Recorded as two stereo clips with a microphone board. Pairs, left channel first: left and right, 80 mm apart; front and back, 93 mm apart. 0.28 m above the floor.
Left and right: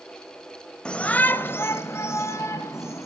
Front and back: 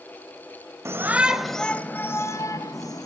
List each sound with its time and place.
0.8 s a shout: 160° left, 1.4 m; by 3.1 s 40° left, 2.5 m